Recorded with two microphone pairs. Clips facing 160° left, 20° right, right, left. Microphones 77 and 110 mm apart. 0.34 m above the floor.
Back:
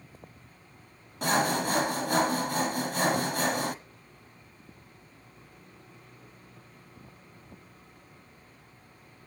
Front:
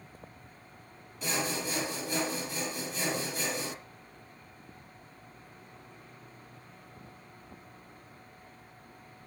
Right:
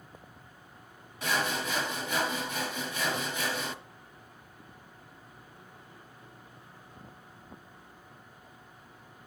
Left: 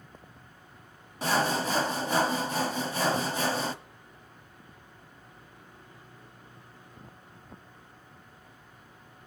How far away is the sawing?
About 1.1 m.